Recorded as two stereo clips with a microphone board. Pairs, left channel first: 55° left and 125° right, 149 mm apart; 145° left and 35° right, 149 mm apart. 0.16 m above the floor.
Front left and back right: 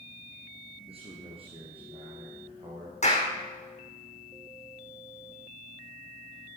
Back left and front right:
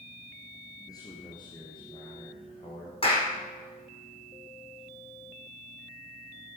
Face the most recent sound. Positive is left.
turn(degrees=95)